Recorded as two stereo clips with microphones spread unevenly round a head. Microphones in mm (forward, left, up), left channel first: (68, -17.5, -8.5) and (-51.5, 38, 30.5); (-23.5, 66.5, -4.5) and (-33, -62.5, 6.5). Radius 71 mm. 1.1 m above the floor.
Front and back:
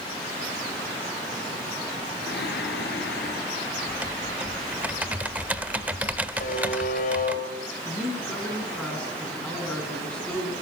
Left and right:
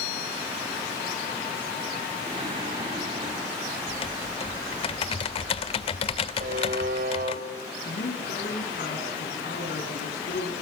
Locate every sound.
2.3 s singing: 40° right, 8 m
3.9 s typing on a keyboard: 105° left, 0.9 m
6.4 s a buzzer: 60° right, 5.5 m
7.8 s a man speaking: 60° left, 9 m